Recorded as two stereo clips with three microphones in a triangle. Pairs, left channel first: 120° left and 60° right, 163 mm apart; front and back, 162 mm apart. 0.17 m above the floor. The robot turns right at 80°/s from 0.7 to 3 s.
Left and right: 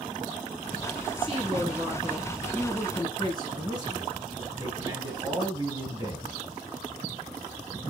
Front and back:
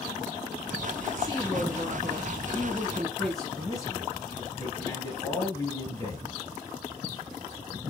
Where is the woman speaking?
65° right, 1.6 m; by 3.5 s 85° left, 1.6 m.